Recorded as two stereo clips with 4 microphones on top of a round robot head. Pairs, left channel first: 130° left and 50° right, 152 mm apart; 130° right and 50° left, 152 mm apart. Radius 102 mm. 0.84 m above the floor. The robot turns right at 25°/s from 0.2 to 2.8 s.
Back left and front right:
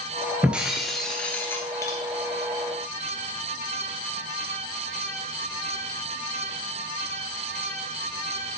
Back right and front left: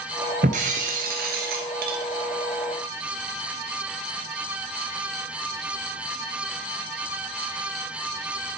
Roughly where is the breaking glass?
Ahead left.